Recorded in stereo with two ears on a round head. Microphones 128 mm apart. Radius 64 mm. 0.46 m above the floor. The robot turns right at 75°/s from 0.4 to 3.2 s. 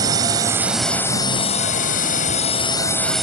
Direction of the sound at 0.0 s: 30° right.